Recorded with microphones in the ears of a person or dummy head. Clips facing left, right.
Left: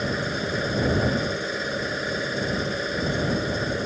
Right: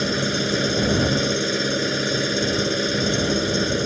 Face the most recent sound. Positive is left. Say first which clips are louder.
# right 4 dB
turn(degrees=-45)  # may be behind; listen again after turning